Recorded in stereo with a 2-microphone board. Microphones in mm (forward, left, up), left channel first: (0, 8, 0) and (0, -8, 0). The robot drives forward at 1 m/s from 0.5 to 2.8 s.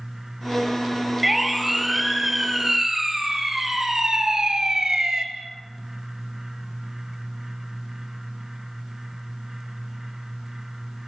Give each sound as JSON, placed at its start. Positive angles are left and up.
{"t": 1.2, "sound": "a siren", "side_deg": -10, "distance_m": 3.0}